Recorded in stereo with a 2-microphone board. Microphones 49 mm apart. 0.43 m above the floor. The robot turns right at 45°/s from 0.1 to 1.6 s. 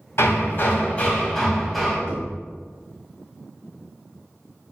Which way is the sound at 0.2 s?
115° left.